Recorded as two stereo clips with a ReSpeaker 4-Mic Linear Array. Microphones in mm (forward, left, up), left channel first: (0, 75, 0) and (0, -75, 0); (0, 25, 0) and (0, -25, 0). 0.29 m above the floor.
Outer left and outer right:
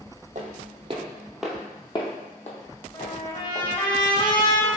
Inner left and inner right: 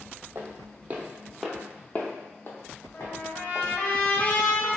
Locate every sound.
0.3 s footsteps: 60° right (ahead or behind), 0.8 m; by 3.7 s 65° left (ahead or behind), 1.4 m
2.9 s a trumpet: 30° left (ahead or behind), 0.6 m